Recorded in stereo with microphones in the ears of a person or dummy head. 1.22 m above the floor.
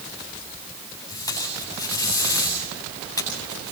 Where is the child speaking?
I don't hear a child speaking.